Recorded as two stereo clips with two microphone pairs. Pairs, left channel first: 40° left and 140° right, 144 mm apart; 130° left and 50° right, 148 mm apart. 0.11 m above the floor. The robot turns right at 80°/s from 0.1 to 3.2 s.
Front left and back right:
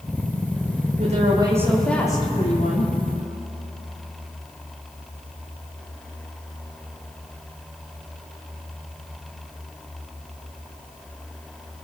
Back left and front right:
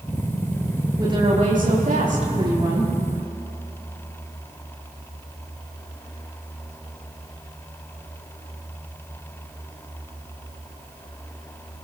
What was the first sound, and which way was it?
A woman speaking, 115° right.